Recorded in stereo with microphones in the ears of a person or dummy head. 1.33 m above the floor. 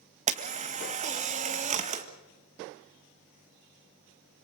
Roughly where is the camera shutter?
Right.